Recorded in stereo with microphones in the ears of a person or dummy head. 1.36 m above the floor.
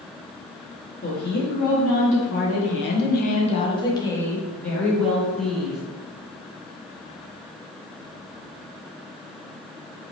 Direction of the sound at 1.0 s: 60° left (ahead or behind).